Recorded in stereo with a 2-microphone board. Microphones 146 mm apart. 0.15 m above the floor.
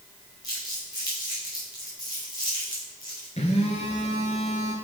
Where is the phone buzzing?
50° left (ahead or behind), 1.6 m.